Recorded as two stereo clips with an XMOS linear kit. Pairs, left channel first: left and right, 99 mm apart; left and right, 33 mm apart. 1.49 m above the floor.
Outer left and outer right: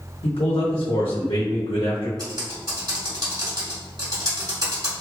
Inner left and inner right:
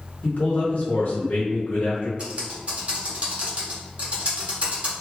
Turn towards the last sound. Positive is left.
turn(degrees=-45)  # may be behind; listen again after turning